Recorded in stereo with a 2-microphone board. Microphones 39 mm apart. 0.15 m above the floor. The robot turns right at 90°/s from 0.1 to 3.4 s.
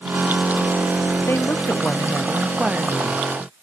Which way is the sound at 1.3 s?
75° left.